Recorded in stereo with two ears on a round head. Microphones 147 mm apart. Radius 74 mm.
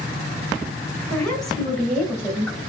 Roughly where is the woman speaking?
Centre.